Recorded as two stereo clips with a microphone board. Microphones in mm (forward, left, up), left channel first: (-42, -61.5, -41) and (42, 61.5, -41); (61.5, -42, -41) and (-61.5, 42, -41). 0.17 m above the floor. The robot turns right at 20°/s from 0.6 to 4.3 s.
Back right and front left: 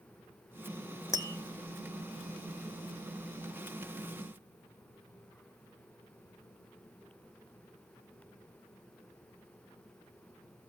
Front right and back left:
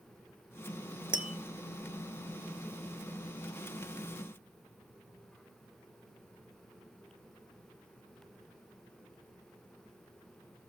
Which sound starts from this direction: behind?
Tapping, at 1.1 s.